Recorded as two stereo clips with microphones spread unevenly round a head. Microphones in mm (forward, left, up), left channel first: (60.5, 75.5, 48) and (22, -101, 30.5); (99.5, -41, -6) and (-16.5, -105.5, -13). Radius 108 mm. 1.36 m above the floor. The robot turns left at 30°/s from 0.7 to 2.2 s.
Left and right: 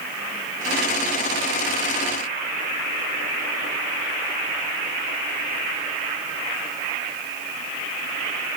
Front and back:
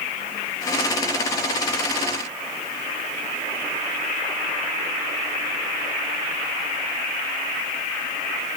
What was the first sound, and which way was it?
Only background noise.